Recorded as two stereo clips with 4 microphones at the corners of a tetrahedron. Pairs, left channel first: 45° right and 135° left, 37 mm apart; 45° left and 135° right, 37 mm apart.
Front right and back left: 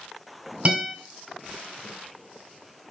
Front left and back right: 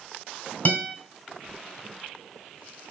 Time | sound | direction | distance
0.7 | a guitar | 85° left | 2 m